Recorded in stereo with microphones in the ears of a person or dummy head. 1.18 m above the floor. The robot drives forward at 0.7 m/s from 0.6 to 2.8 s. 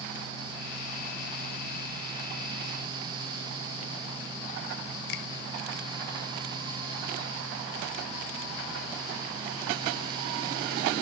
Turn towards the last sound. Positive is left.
turn(degrees=60)  # may be behind; listen again after turning